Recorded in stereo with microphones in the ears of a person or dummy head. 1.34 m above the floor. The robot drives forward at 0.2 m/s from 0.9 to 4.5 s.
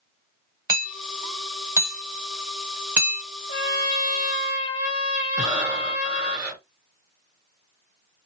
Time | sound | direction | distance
0.7 | hammering | 15° right (ahead or behind) | 0.9 m
3.5 | a trumpet | 50° left (ahead or behind) | 1.2 m
5.4 | breathing | 5° right (ahead or behind) | 1.5 m